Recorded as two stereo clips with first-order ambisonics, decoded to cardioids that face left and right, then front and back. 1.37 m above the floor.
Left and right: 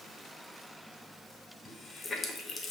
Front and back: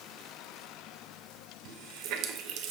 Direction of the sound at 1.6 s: 160° left.